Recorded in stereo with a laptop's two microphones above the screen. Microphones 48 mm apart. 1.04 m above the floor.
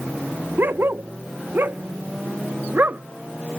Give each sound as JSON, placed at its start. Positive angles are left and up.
{"t": 0.6, "sound": "a dog barking", "side_deg": -55}